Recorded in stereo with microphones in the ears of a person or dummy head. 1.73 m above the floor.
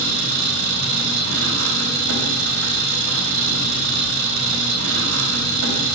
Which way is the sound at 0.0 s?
75° right (ahead or behind).